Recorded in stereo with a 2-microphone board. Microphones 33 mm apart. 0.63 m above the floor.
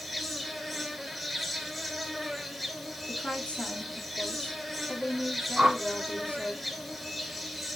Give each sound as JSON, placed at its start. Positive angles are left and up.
{"t": 0.0, "sound": "an insect", "side_deg": 0, "distance_m": 0.8}
{"t": 3.1, "sound": "a woman speaking", "side_deg": 45, "distance_m": 1.5}
{"t": 5.6, "sound": "a whoosh", "side_deg": -30, "distance_m": 1.0}